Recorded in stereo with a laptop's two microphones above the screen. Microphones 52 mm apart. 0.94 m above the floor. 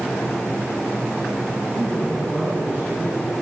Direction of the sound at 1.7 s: 15° left (ahead or behind).